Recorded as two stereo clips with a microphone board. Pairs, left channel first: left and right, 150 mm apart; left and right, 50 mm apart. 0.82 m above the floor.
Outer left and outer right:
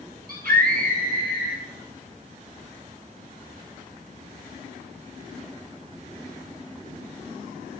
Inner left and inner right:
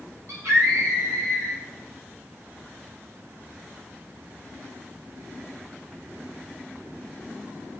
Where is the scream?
75° right (ahead or behind), 6 m; by 1.6 s 80° right, 7 m.